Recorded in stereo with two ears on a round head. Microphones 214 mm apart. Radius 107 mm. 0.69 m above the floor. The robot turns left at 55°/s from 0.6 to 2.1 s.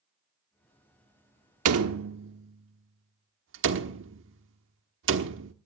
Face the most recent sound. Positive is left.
turn(degrees=-55)  # may be behind; listen again after turning